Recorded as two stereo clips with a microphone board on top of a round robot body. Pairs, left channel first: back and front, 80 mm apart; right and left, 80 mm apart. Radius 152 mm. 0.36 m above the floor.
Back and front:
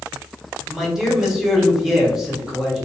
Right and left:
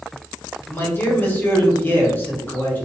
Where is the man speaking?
75° right, 1.1 m.